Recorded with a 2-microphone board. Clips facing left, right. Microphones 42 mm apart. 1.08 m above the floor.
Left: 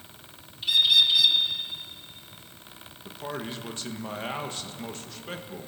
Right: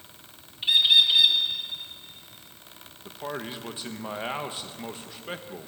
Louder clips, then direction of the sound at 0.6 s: Right 1 dB; 30° right (ahead or behind).